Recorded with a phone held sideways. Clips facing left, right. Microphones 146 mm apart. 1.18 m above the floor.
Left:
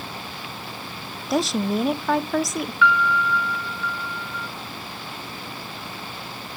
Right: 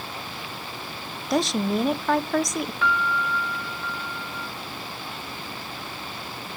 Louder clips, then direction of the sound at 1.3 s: Left 1 dB; centre (ahead or behind).